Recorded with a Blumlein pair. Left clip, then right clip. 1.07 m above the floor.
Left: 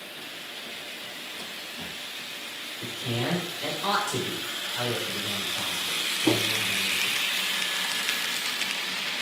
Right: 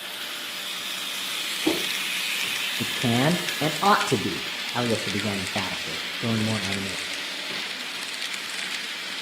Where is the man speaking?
40° right, 0.9 m.